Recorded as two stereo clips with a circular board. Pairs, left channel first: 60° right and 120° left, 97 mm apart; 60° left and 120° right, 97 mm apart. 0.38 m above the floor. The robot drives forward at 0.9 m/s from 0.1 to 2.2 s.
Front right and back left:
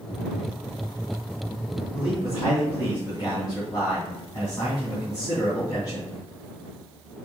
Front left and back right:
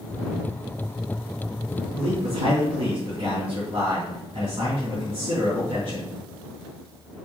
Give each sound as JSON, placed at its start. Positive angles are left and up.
{"t": 1.9, "sound": "a man speaking", "azimuth_deg": -105, "distance_m": 3.0}